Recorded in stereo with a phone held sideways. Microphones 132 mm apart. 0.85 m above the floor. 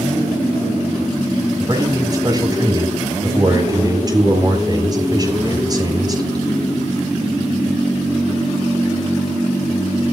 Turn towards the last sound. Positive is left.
turn(degrees=-30)  # may be behind; listen again after turning